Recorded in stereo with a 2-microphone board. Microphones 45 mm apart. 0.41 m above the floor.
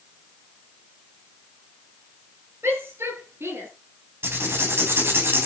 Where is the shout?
70° right (ahead or behind), 8 m; by 3.7 s 65° right (ahead or behind), 8.5 m.